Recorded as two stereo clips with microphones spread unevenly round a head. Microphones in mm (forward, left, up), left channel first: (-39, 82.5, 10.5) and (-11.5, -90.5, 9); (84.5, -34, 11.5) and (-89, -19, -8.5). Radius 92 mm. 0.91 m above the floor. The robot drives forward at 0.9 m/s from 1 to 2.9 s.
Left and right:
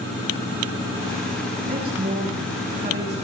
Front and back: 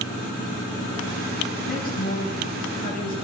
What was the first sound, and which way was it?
A woman speaking, 35° right.